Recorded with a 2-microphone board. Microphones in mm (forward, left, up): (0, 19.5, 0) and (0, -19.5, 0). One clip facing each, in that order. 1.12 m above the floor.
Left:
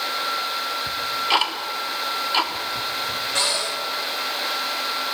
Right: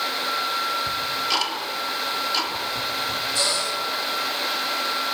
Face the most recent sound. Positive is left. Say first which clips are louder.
# left 2 dB
turn(degrees=70)  # may be behind; listen again after turning